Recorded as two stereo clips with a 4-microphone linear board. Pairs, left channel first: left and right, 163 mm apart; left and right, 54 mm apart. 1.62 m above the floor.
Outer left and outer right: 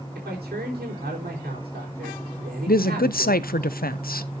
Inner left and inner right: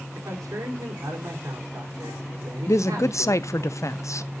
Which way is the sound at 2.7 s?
65° left (ahead or behind).